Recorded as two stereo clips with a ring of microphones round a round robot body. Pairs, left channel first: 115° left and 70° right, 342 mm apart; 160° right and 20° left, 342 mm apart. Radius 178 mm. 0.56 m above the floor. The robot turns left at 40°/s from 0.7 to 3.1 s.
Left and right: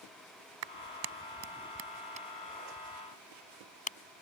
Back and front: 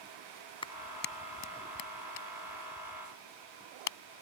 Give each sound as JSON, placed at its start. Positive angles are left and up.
{"t": 0.6, "sound": "a clap", "azimuth_deg": -80}